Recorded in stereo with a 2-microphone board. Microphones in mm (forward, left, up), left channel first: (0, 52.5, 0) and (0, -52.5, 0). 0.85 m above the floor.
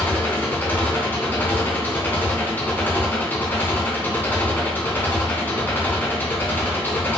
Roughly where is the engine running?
Centre.